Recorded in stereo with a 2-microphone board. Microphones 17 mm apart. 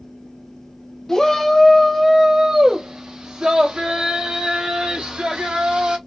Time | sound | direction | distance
1.1 | a shout | 45° left (ahead or behind) | 0.9 m